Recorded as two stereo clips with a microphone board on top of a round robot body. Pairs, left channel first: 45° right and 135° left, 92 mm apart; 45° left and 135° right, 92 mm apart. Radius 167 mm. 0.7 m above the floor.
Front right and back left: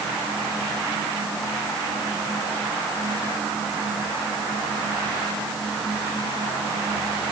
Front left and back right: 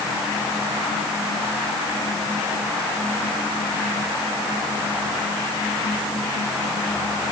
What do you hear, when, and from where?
Only background noise.